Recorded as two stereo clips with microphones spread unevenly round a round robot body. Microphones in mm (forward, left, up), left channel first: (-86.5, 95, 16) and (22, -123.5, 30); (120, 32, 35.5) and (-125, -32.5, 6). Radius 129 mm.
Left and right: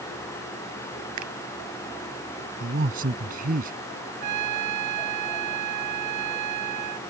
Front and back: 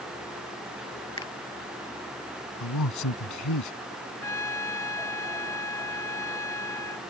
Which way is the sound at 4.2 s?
65° right.